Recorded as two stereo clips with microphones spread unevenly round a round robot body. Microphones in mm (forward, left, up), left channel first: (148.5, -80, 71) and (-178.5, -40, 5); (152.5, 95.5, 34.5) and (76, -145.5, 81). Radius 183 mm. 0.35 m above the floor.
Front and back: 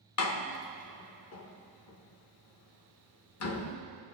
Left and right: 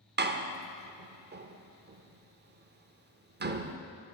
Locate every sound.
0.2 s a door slam: 55° right, 0.8 m